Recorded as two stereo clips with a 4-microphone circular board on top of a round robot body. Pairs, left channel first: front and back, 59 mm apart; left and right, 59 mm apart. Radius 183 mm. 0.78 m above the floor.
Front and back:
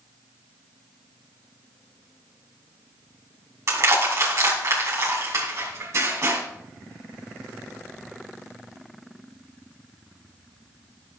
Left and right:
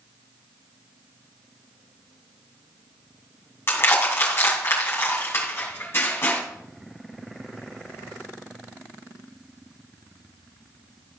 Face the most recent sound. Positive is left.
turn(degrees=140)